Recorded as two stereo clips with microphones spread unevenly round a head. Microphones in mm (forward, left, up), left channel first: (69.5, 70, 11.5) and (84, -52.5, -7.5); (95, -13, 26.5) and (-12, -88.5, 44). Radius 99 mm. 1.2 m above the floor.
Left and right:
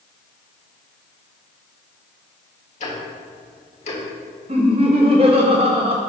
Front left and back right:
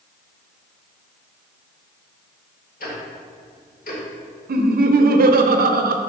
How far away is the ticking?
About 1.5 m.